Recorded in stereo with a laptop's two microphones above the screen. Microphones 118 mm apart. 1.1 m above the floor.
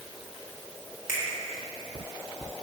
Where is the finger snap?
25° right (ahead or behind), 1.6 m.